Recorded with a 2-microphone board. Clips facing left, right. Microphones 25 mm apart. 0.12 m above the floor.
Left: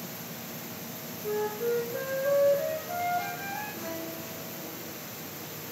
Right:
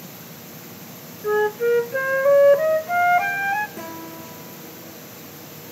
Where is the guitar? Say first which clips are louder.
Right 3 dB; 80° right, 8 m.